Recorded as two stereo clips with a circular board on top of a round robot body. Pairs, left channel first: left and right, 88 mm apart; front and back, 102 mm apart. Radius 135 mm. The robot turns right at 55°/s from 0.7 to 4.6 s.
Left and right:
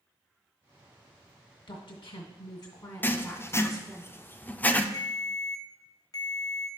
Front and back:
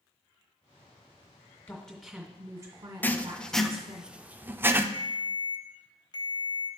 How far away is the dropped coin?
I don't hear a dropped coin.